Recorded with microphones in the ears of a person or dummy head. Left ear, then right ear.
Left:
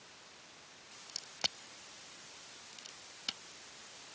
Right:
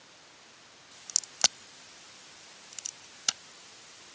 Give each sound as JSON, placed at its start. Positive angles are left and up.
{"t": 1.1, "sound": "a crack", "side_deg": -45}